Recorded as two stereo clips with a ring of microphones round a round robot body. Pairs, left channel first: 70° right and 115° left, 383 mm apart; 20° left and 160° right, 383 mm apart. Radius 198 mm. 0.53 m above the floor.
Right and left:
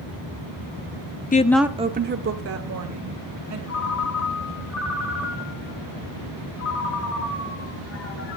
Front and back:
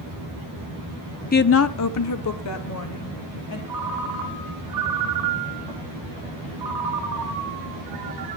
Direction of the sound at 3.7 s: 120° right.